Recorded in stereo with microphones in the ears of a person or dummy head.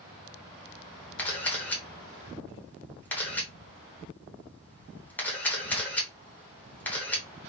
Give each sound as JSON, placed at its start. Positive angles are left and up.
{"t": 1.2, "sound": "a camera shutter", "side_deg": 5, "distance_m": 0.7}